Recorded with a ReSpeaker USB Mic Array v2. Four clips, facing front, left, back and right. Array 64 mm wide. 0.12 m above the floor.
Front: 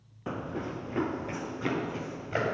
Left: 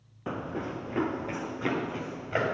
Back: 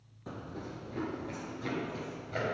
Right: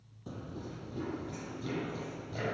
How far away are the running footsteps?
About 0.6 m.